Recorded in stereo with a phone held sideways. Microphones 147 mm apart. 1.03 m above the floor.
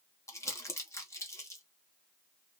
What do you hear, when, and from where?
0.3 s crumpling: 20° left (ahead or behind), 0.7 m